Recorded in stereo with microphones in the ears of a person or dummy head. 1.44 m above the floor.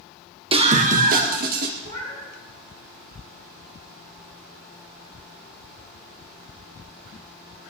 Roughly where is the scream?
Right.